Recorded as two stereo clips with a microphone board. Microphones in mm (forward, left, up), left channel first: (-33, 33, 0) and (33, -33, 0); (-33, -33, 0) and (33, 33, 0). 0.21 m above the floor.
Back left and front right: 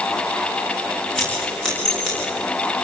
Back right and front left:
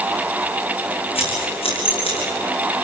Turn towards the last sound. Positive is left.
turn(degrees=-140)